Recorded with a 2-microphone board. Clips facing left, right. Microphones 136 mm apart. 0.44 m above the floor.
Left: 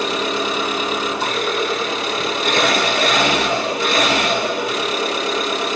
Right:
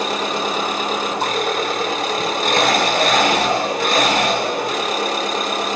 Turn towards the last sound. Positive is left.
turn(degrees=-45)  # may be behind; listen again after turning